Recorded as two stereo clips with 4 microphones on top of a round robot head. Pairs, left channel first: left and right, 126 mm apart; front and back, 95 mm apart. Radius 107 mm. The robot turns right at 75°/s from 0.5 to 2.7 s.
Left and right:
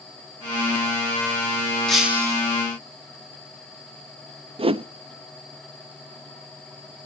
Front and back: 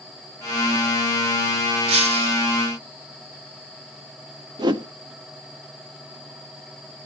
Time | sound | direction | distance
1.9 | breaking glass | 175° left | 3 m
4.6 | a whoosh | 135° right | 0.8 m